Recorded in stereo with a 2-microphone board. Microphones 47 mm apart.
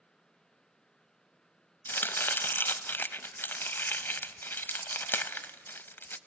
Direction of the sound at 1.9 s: 55° left (ahead or behind).